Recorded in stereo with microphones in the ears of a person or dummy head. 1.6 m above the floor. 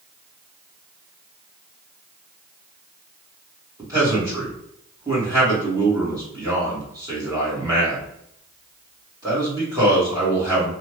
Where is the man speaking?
20° right (ahead or behind), 1.3 m.